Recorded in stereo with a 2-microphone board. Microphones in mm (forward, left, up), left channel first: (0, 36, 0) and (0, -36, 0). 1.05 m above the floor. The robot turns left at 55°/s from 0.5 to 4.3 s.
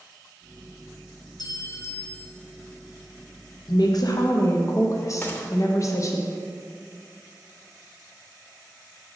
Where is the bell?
No bell in this recording.